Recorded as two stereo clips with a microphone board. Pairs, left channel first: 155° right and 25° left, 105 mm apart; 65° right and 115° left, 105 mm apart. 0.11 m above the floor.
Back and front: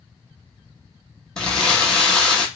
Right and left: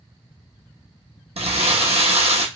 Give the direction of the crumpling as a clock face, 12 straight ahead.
8 o'clock.